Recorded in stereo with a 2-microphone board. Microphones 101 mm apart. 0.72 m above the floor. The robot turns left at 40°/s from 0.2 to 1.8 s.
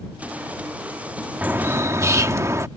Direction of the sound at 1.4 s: 15° right (ahead or behind).